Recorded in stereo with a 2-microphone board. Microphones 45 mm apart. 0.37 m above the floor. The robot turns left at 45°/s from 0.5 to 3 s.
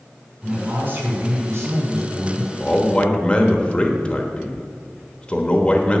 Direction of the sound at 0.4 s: 20° right.